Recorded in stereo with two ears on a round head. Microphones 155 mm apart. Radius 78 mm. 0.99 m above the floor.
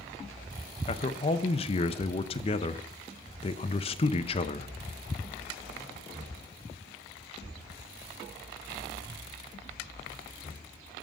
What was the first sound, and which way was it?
A man speaking, 35° left (ahead or behind).